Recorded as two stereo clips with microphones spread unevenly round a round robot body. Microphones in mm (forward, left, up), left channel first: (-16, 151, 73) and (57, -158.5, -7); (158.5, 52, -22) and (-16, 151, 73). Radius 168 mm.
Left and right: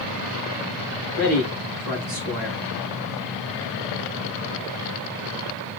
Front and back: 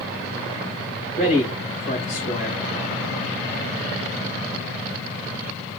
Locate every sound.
1.2 s a man speaking: 100° right, 8 m